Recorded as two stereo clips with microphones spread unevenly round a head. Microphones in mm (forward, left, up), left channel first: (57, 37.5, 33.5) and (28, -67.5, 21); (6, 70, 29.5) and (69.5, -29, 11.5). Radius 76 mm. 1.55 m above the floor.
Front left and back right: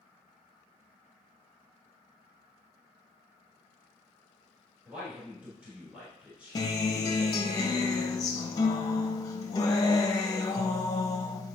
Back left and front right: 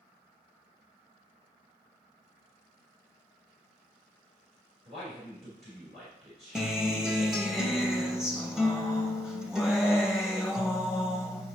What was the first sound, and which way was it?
A man speaking, 30° right.